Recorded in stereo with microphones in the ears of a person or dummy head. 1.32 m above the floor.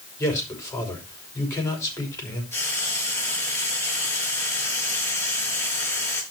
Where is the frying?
15° left (ahead or behind), 5 m.